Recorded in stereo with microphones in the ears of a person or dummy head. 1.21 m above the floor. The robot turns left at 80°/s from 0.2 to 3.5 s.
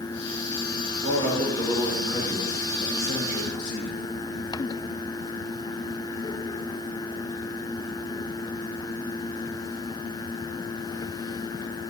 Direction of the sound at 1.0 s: 115° right.